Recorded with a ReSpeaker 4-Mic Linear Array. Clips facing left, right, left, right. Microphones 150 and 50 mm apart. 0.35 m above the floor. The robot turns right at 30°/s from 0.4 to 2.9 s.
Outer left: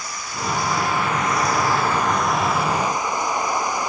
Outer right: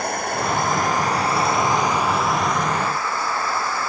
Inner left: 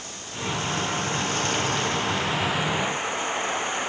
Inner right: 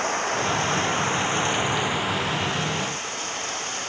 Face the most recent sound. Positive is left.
turn(degrees=15)